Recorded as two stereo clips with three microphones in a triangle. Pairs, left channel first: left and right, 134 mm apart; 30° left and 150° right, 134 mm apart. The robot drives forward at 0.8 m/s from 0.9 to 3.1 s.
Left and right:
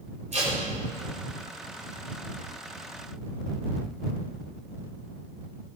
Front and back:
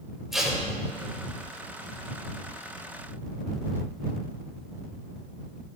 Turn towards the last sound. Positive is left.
turn(degrees=-80)